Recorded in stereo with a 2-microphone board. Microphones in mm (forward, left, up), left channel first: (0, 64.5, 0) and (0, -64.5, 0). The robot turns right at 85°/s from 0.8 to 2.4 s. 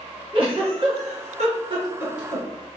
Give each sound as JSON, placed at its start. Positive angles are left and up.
{"t": 0.3, "sound": "a giggle", "side_deg": -45, "distance_m": 1.8}